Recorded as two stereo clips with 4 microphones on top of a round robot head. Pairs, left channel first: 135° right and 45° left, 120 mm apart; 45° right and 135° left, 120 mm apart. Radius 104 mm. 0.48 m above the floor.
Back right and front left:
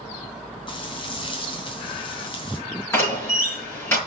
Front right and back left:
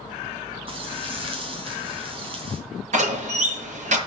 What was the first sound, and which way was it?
Frying, straight behind.